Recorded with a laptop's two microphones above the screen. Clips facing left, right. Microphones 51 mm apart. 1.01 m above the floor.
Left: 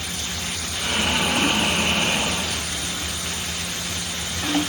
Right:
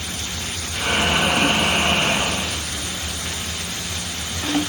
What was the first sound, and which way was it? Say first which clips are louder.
Breathing: right 4 dB; 70° right (ahead or behind).